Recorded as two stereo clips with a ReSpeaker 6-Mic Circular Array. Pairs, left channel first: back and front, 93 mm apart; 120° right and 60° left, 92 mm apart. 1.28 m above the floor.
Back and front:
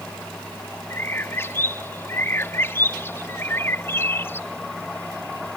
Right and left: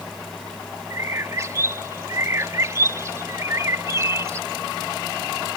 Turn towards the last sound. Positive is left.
turn(degrees=115)